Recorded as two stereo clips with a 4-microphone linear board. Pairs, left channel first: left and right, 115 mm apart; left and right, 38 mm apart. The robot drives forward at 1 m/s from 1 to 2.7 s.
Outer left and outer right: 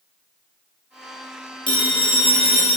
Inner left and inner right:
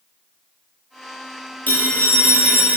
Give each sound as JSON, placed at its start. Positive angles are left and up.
{"t": 1.7, "sound": "a phone ringing", "side_deg": 45, "distance_m": 2.5}